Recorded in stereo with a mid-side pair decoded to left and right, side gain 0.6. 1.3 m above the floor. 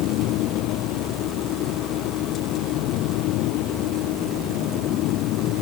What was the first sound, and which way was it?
A fan, 70° left.